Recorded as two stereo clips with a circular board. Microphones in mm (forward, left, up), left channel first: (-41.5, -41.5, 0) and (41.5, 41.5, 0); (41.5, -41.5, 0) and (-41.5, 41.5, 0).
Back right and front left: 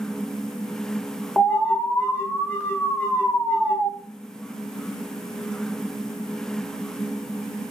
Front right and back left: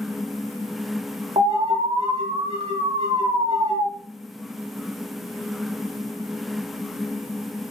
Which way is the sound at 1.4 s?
150° left.